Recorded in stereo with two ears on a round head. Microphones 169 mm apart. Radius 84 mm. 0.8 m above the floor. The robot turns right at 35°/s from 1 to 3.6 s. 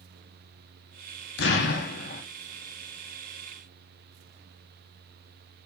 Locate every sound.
1.4 s an explosion: 75° left (ahead or behind), 0.6 m; by 2.2 s 45° left (ahead or behind), 0.6 m